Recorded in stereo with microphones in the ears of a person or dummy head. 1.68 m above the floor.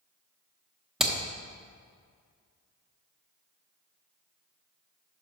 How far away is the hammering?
About 0.9 m.